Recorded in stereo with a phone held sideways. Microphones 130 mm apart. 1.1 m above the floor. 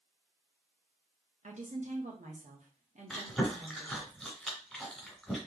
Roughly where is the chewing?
Centre.